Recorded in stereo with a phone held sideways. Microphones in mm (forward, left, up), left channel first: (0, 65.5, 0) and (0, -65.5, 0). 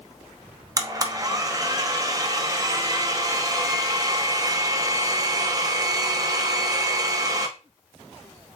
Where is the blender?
30° right (ahead or behind), 0.7 m.